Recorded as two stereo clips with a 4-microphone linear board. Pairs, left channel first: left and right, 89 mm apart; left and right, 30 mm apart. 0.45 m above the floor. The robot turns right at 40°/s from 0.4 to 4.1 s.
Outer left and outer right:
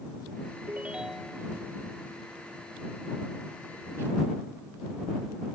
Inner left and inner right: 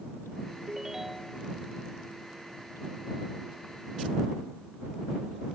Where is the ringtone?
20° right; by 1.5 s 10° left.